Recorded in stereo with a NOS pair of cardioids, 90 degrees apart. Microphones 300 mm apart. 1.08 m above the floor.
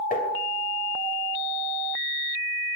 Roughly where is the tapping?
Ahead left.